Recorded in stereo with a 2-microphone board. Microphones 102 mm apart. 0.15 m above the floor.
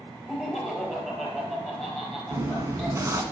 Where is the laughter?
5° right (ahead or behind), 3 m.